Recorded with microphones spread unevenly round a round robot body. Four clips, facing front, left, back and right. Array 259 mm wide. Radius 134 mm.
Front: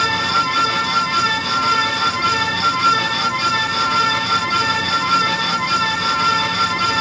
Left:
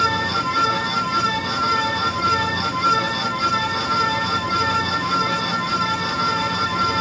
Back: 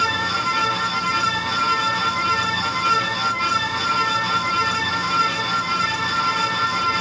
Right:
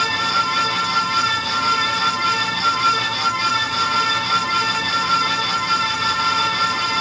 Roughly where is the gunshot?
I don't hear a gunshot.